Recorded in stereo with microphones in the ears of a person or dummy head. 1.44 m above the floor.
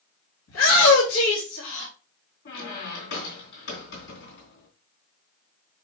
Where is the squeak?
65° left (ahead or behind), 3 m.